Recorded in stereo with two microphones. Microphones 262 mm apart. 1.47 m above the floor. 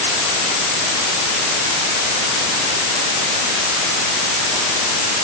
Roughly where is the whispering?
No whispering in this recording.